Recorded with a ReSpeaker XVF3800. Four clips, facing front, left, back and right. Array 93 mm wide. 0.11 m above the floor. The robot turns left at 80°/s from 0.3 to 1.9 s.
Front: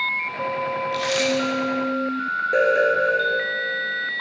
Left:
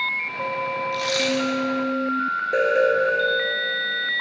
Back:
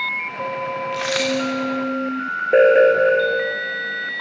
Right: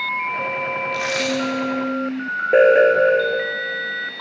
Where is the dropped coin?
140° right, 7 m; by 1.3 s 170° right, 7 m.